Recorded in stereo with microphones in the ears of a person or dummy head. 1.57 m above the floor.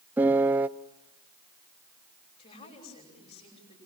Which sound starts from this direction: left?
A woman speaking, at 2.4 s.